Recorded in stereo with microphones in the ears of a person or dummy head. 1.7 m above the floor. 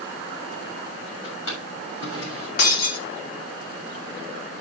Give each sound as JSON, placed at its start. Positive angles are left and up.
{"t": 1.2, "sound": "a drawer", "side_deg": 80, "distance_m": 6.5}
{"t": 2.6, "sound": "breaking glass", "side_deg": 55, "distance_m": 1.8}